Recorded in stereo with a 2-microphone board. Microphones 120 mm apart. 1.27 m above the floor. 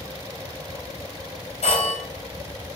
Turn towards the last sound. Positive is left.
turn(degrees=65)  # may be behind; listen again after turning